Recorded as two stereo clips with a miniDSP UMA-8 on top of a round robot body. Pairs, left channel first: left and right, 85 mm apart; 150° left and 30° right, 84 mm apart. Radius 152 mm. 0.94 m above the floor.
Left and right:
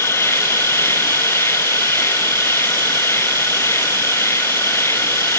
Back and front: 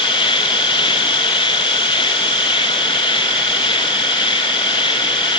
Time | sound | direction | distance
0.0 | an insect | 150° left | ?